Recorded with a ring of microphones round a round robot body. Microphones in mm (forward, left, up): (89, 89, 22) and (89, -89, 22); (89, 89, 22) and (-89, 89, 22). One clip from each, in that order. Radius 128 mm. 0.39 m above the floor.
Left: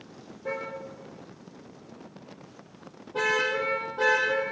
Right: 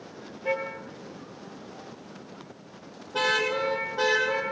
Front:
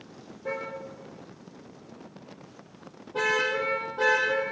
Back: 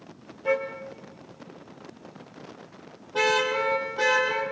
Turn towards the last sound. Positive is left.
turn(degrees=-120)